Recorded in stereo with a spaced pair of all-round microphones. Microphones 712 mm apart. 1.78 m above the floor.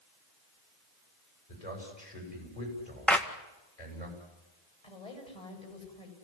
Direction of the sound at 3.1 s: Centre (ahead or behind).